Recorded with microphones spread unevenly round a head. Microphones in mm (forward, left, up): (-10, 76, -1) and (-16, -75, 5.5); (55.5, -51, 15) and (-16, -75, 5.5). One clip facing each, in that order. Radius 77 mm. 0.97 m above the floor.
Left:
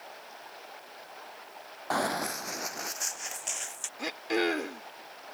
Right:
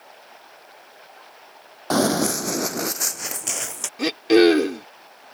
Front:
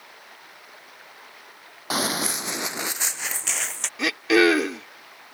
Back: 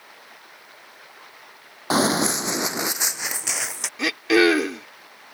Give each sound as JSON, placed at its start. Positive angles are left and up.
{"t": 1.9, "sound": "running footsteps", "azimuth_deg": -105}
{"t": 4.0, "sound": "throat clearing", "azimuth_deg": -70}